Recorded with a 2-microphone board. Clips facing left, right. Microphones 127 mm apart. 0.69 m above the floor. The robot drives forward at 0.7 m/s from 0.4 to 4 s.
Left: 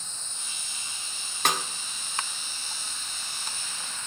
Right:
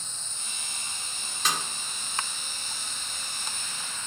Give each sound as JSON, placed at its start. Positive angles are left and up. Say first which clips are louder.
{"t": 1.4, "sound": "a snare drum", "louder": "left 3 dB", "side_deg": 60, "distance_m": 1.6}